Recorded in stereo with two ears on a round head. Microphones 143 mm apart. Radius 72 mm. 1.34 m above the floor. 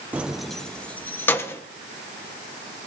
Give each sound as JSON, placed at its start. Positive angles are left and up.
{"t": 0.1, "sound": "keys jangling", "side_deg": -10, "distance_m": 0.6}